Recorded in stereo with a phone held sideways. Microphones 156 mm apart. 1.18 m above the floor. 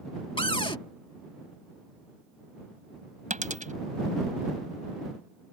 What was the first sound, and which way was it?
A cupboard door, 35° left (ahead or behind).